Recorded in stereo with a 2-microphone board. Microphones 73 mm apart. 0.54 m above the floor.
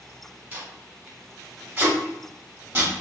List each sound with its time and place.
0.5 s tape being pulled: 25° right (ahead or behind), 1.1 m